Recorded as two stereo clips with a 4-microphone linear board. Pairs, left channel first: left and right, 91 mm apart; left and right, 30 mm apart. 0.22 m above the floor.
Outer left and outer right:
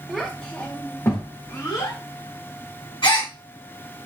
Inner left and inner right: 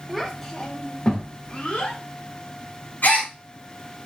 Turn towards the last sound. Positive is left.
turn(degrees=70)  # may be behind; listen again after turning